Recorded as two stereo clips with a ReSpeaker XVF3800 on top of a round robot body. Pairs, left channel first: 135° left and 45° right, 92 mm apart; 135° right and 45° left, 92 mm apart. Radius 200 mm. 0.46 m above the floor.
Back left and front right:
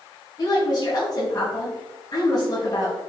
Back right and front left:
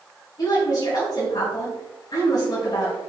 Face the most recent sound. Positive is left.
turn(degrees=180)